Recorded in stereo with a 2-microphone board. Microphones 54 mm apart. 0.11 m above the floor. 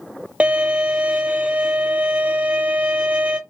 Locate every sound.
0.4 s a violin: 25° right (ahead or behind), 0.6 m